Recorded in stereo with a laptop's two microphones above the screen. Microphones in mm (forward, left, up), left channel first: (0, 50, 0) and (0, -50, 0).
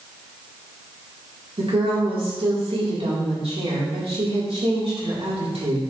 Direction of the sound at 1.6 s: 75° right (ahead or behind).